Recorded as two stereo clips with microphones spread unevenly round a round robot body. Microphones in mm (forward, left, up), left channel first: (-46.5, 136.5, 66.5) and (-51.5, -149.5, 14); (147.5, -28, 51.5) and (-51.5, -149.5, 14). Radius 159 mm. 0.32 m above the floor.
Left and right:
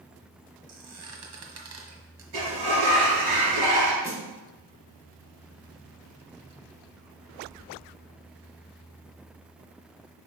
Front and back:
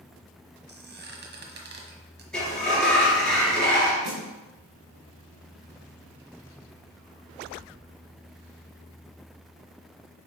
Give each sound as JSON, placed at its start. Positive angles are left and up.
{"t": 0.7, "sound": "a squeak", "azimuth_deg": -110, "distance_m": 1.4}
{"t": 2.3, "sound": "a sliding door", "azimuth_deg": -55, "distance_m": 3.0}
{"t": 4.0, "sound": "a snare drum", "azimuth_deg": -165, "distance_m": 2.5}